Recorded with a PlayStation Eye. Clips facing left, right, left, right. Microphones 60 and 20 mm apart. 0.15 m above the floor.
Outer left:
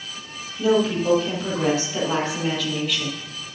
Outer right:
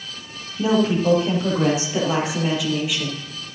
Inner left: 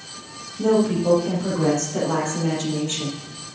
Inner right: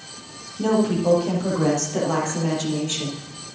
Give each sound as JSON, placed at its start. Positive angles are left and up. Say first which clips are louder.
{"t": 0.6, "sound": "a woman speaking", "louder": "outer right 1 dB, inner left 1 dB", "side_deg": -25, "distance_m": 5.0}